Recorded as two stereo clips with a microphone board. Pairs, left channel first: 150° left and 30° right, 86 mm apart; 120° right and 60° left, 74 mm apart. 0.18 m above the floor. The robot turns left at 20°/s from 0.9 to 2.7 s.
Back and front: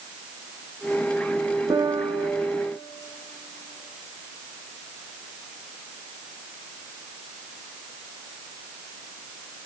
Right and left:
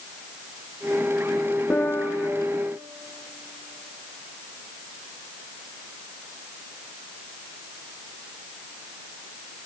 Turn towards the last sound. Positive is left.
turn(degrees=-85)